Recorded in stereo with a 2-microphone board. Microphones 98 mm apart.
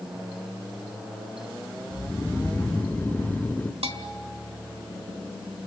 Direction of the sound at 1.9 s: 20° left (ahead or behind).